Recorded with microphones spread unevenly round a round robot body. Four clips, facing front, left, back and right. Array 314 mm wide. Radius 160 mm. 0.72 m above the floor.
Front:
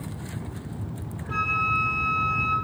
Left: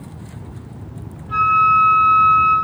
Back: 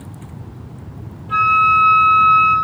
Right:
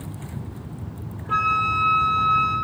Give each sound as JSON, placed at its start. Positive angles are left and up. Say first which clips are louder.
{"t": 1.3, "sound": "a flute", "louder": "left 8 dB, back 13 dB", "azimuth_deg": -90, "distance_m": 1.1}